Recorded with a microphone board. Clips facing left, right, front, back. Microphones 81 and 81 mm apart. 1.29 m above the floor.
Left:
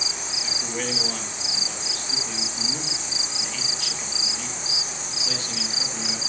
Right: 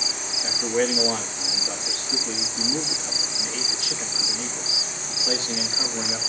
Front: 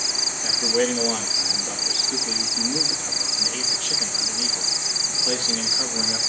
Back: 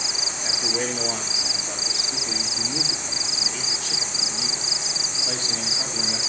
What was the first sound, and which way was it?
A man speaking, 20° right.